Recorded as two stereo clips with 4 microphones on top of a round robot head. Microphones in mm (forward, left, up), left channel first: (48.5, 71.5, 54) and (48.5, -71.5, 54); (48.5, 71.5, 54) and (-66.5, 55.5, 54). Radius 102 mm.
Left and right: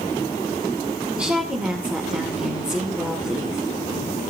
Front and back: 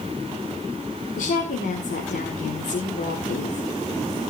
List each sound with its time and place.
1.2 s a woman speaking: 5° right, 2.5 m